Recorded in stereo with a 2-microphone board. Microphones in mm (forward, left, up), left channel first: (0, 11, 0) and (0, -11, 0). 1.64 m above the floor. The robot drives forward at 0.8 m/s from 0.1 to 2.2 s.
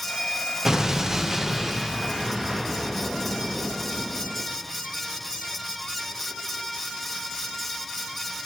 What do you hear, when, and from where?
0.7 s an explosion: 20° right (ahead or behind), 0.6 m; by 4.4 s 10° right (ahead or behind), 1.3 m